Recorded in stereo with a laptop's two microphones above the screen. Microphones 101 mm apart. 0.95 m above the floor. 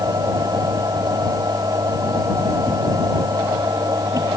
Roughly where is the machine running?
Right.